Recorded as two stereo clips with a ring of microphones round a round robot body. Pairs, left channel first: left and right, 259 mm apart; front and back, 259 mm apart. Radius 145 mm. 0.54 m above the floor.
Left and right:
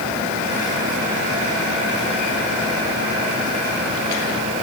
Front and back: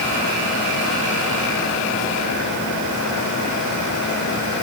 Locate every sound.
Only background noise.